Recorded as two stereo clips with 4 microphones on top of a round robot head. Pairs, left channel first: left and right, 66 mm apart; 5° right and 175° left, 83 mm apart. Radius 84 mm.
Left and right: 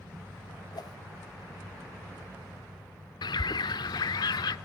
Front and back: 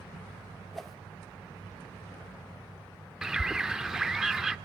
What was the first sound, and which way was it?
A whoosh, 85° left.